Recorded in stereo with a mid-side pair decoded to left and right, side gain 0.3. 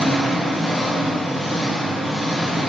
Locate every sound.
0.0 s an engine running: 25° left, 1.4 m